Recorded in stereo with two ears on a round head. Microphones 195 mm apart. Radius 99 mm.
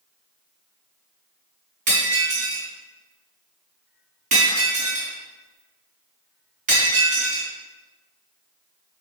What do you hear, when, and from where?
1.9 s breaking glass: 40° right (ahead or behind), 4 m